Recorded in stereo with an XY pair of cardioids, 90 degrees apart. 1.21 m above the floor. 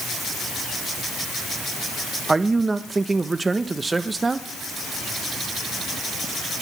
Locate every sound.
2.3 s a man speaking: 25° right, 1.2 m